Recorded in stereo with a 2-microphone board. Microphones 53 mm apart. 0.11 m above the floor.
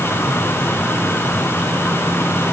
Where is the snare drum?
I don't hear a snare drum.